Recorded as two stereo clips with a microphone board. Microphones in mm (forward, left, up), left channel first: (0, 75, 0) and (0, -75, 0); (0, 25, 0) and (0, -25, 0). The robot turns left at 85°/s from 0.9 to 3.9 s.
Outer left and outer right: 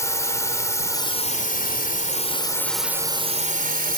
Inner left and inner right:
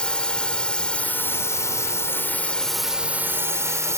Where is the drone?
160° left; by 4.0 s 95° right.